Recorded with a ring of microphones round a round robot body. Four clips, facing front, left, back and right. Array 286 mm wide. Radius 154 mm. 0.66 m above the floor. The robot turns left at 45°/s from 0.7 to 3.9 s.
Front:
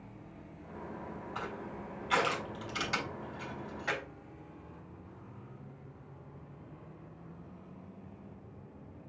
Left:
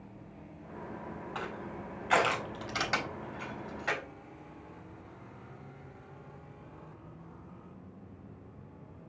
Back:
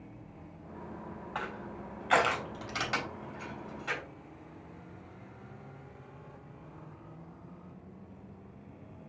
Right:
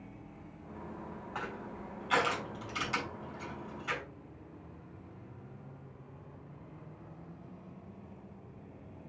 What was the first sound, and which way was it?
Crushing, 165° right.